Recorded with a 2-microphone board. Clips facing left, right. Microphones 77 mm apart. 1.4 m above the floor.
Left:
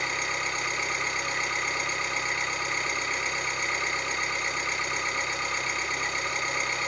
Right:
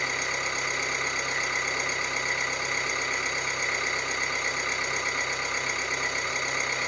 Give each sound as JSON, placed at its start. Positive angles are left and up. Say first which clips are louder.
{"t": 0.0, "sound": "an engine running", "louder": "even", "side_deg": -10, "distance_m": 2.5}